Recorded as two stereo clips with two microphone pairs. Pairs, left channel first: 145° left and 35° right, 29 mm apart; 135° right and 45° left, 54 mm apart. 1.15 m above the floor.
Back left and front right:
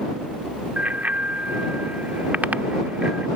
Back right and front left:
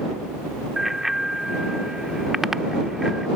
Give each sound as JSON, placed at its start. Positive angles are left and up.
{"t": 0.8, "sound": "a bicycle bell", "azimuth_deg": -40}